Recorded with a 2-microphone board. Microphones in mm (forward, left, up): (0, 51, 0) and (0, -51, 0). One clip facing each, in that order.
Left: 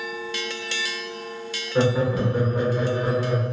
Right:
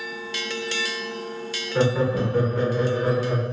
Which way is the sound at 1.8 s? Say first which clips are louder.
Even; 15° left (ahead or behind).